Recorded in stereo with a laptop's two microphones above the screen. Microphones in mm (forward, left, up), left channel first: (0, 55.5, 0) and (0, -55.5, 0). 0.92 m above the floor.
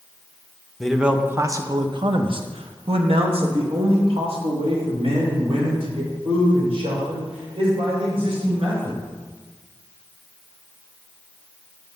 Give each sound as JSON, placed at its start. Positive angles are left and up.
{"t": 0.8, "sound": "a man speaking", "side_deg": 5, "distance_m": 0.6}